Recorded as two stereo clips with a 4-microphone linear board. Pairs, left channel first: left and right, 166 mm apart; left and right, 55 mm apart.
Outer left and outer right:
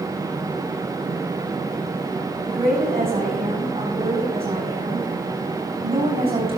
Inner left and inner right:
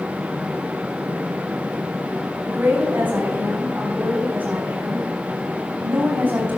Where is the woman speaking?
40° right (ahead or behind), 3.5 m.